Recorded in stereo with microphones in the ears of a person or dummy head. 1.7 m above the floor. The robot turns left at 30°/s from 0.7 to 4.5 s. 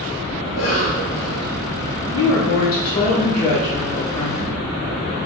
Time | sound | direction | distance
0.4 | a cough | 70° left (ahead or behind) | 1.9 m
2.1 | a woman speaking | 85° left | 0.6 m